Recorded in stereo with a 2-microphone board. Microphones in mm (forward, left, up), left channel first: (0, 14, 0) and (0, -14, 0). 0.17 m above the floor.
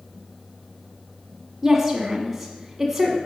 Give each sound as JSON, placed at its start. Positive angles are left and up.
{"t": 1.6, "sound": "a woman speaking", "side_deg": -15, "distance_m": 1.2}